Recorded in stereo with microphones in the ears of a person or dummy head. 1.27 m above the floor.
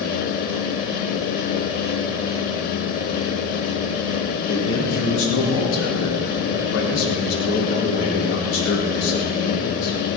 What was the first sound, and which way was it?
A man speaking, 85° left.